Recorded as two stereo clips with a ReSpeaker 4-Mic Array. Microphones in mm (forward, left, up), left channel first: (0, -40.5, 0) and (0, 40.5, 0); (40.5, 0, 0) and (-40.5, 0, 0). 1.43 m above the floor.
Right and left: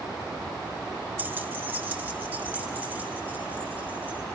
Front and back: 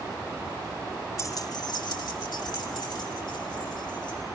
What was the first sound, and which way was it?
Keys jangling, 35° left.